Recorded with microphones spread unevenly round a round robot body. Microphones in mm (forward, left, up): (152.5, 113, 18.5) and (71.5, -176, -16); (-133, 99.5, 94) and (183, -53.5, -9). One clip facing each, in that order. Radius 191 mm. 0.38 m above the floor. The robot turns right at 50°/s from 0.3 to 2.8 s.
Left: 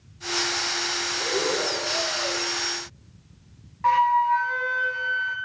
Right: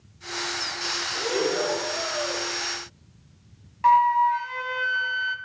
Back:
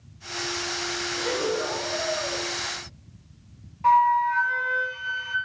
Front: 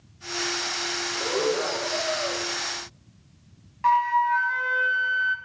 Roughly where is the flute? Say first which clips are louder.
Right 1 dB, back 2 dB; ahead right.